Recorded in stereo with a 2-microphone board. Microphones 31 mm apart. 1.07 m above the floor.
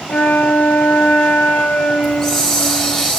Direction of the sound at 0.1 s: 80° left.